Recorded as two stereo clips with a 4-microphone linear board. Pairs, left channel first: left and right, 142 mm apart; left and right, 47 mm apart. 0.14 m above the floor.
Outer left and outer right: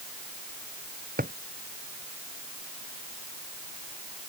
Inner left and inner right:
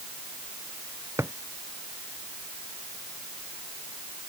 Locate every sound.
1.2 s a drawer: 80° right